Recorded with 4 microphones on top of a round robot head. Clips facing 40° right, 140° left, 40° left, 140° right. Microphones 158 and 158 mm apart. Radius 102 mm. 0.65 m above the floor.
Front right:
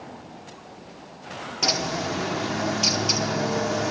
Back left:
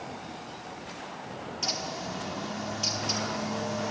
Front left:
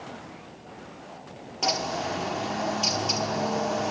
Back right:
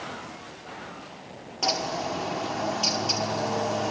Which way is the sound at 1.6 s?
50° right.